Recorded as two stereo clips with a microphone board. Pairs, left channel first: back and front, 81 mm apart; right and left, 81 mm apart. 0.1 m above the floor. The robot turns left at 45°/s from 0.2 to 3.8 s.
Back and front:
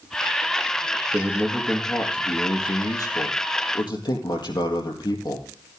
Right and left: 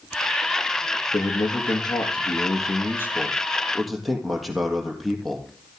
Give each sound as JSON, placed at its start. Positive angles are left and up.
{"t": 1.1, "sound": "a man speaking", "azimuth_deg": -60, "distance_m": 3.0}